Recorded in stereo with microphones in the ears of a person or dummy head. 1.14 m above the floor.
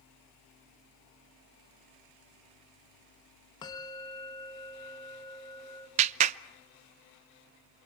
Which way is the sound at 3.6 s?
15° left (ahead or behind).